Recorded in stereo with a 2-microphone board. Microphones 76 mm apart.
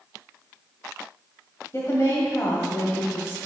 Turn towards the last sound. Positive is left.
turn(degrees=40)  # may be behind; listen again after turning